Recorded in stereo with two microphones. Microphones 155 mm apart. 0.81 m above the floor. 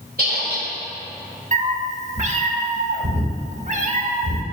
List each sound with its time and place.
0.2 s a squeak: 70° right (ahead or behind), 1.5 m
1.5 s a cat meowing: 50° right (ahead or behind), 0.6 m